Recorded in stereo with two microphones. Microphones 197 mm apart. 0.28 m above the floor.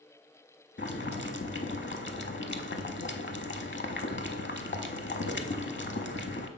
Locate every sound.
0.8 s boiling: 75° left (ahead or behind), 0.6 m